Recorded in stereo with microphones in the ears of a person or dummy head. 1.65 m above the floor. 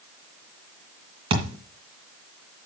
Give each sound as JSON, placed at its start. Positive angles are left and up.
{"t": 1.3, "sound": "a thud", "side_deg": -35, "distance_m": 2.5}